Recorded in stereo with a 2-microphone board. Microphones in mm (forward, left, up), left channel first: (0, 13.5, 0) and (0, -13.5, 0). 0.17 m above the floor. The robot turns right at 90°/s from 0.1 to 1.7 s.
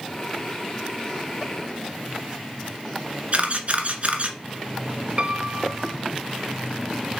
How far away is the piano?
About 0.7 m.